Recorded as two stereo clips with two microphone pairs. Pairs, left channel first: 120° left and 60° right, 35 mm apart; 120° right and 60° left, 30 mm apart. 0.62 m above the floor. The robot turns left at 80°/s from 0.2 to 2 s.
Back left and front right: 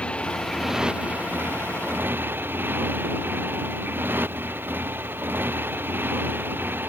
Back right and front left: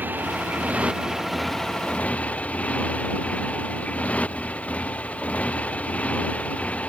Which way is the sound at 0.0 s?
60° left.